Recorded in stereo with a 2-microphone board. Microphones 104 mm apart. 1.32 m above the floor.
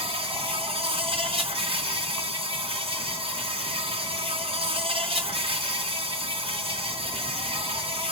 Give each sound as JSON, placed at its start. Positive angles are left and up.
{"t": 0.0, "sound": "an insect", "side_deg": -55, "distance_m": 1.9}